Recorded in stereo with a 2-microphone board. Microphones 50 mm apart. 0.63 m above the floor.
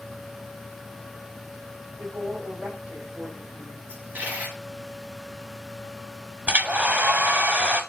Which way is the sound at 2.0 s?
5° right (ahead or behind).